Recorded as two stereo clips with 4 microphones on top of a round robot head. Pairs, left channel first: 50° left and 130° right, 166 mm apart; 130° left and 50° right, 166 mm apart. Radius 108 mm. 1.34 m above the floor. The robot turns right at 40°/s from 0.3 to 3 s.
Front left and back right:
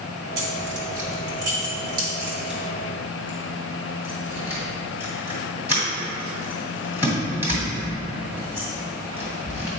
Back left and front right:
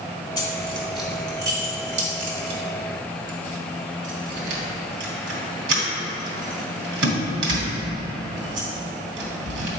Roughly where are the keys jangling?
Behind right.